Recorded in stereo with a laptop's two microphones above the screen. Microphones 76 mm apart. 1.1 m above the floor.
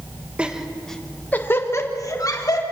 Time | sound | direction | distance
0.4 | laughter | 15° right (ahead or behind) | 1.2 m